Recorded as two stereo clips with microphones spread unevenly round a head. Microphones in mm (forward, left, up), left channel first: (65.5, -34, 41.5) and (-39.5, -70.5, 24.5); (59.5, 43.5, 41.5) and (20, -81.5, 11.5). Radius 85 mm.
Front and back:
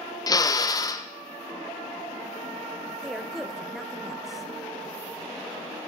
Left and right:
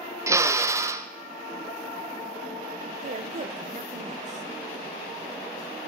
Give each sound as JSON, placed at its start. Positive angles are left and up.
{"t": 0.3, "sound": "a drill", "azimuth_deg": -40, "distance_m": 1.2}
{"t": 3.0, "sound": "a woman speaking", "azimuth_deg": -70, "distance_m": 1.2}